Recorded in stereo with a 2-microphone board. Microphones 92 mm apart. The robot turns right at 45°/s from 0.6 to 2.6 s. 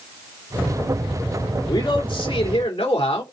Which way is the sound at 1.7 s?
45° left.